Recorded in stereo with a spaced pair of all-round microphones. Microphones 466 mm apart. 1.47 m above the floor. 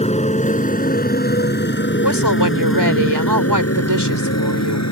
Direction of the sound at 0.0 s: 15° left (ahead or behind).